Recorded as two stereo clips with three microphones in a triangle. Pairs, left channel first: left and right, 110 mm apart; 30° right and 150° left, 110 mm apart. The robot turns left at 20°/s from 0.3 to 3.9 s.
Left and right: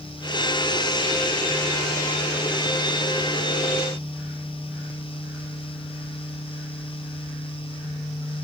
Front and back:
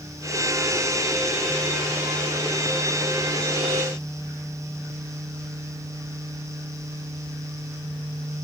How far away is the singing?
No singing in this recording.